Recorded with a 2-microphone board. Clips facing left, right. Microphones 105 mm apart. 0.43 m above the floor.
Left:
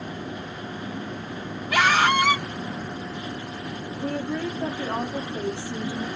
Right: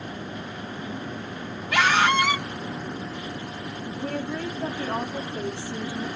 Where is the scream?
10° left (ahead or behind), 3.5 m.